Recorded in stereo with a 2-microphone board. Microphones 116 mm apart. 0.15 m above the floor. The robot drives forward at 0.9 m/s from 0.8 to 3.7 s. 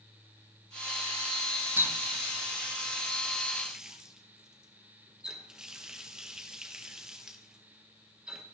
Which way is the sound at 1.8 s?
15° right (ahead or behind).